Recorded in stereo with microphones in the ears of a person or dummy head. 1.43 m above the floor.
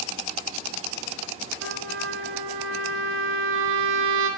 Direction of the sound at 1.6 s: 75° right (ahead or behind).